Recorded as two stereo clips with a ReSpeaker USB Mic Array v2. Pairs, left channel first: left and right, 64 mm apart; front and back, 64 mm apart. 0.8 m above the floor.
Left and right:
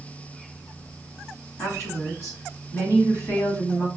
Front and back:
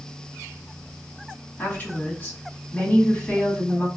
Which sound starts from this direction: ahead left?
A woman speaking, at 1.6 s.